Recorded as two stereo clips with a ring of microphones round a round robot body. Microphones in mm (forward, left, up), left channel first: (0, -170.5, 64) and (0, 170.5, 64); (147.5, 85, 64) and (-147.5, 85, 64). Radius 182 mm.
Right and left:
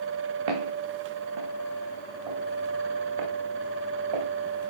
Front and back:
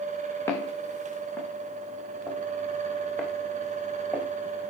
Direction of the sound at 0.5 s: 80° left.